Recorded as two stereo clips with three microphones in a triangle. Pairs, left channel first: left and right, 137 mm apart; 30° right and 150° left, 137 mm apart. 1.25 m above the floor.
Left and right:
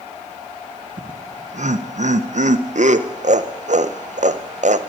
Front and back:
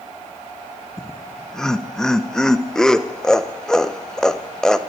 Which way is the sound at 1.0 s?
115° right.